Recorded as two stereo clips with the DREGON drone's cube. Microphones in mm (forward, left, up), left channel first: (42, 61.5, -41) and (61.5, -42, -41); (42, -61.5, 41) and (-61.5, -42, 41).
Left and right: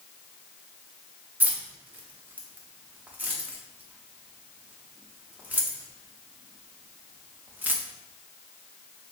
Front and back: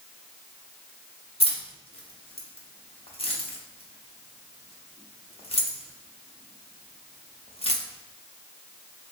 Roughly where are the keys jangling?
Ahead.